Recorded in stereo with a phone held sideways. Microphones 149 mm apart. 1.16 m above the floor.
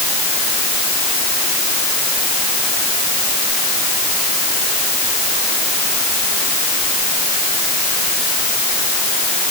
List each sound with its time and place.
Only background noise.